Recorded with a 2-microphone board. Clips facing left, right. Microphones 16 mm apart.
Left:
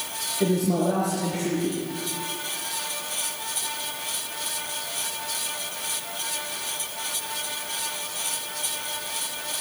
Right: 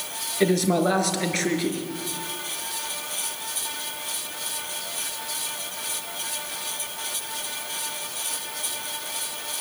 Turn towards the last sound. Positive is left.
turn(degrees=-65)  # may be behind; listen again after turning